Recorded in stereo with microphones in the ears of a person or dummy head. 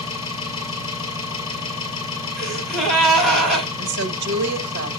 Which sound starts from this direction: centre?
A gasp, at 2.4 s.